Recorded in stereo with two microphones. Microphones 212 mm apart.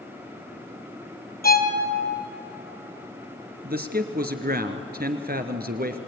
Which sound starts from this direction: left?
A violin, at 1.4 s.